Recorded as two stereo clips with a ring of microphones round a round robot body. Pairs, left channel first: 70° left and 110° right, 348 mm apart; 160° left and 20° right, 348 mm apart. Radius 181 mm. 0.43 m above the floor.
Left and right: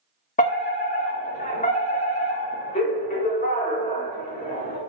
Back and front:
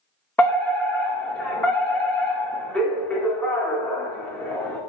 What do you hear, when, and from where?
0.4 s a fire alarm: 80° left, 1.9 m